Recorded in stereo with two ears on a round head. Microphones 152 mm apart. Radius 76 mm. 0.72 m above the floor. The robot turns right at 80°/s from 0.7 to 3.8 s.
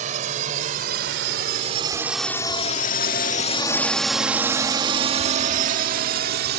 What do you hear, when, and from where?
0.0 s a drone: 45° right (ahead or behind); by 6.6 s 60° right (ahead or behind)